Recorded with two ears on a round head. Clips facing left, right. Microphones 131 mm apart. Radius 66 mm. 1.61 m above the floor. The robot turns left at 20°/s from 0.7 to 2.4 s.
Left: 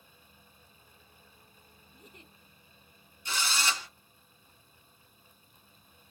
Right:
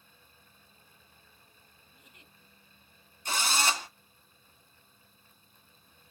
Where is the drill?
40° right (ahead or behind), 1.1 m.